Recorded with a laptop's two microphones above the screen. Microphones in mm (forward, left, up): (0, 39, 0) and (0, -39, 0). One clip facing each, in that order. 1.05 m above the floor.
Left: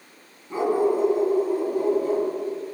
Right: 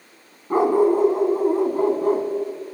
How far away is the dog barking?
About 3 m.